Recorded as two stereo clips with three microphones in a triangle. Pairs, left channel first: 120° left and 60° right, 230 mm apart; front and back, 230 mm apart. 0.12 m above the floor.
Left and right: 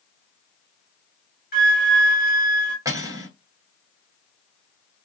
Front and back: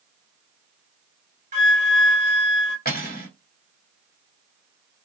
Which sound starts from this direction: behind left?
A flute, at 1.5 s.